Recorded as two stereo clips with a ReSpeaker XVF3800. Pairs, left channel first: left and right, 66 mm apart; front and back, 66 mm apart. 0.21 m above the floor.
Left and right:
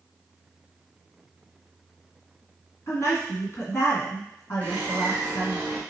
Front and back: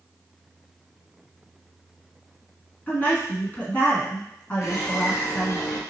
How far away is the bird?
About 1.3 m.